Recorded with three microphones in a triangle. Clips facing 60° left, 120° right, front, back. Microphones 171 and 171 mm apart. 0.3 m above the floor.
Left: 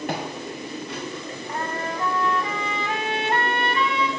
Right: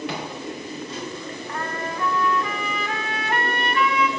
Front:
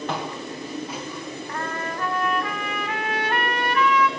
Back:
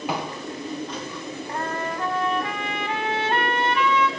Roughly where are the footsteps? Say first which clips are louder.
Left 1 dB, back 1 dB; left.